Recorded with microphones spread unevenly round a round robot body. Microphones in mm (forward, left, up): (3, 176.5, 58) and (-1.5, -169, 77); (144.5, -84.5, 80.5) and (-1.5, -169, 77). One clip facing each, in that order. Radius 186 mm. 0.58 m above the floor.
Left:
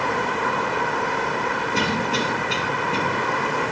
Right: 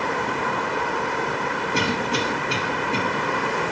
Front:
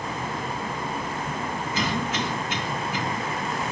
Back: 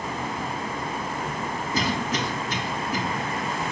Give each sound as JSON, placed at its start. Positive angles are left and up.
{"t": 1.7, "sound": "a cough", "azimuth_deg": 180, "distance_m": 0.7}